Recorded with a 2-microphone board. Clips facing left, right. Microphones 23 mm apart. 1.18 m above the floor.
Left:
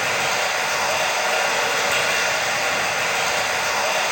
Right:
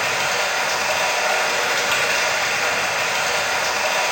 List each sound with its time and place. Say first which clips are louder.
0.0 s running water: right 1 dB; 45° right (ahead or behind), 1.8 m